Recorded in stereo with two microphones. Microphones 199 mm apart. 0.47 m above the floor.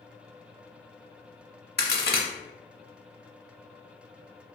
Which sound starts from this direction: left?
A crack, at 1.8 s.